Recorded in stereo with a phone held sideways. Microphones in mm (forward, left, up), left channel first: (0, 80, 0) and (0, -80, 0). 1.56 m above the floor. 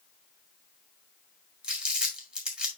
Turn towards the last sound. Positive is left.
turn(degrees=-5)  # may be behind; listen again after turning